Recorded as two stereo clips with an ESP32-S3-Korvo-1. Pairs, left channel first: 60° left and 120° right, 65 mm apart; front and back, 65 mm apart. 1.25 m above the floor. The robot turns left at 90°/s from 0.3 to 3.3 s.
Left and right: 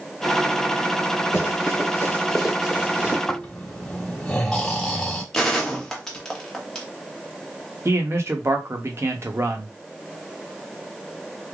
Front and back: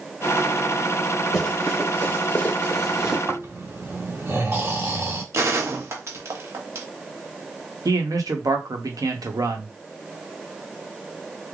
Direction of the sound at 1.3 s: 90° left.